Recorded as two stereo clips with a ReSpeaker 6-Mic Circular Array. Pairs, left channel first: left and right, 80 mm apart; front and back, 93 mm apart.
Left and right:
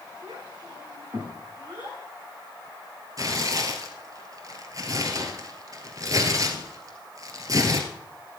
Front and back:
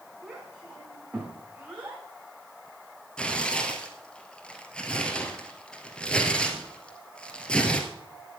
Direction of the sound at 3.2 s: 80° right.